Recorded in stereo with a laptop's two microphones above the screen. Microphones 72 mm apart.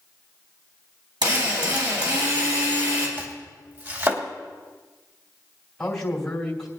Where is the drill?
70° right (ahead or behind), 5 m.